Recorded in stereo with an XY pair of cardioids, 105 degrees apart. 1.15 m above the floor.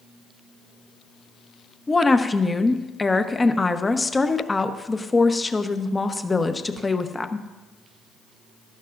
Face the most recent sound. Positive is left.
turn(degrees=20)